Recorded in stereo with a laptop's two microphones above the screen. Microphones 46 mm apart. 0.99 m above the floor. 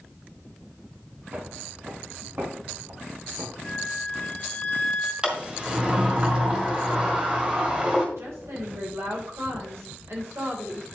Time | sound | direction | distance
1.3 | footsteps | 40° right (ahead or behind) | 2.5 m
3.6 | a flute | 20° left (ahead or behind) | 1.8 m
5.2 | a sliding door | 20° right (ahead or behind) | 2.0 m
8.2 | a woman speaking | 70° right (ahead or behind) | 3.5 m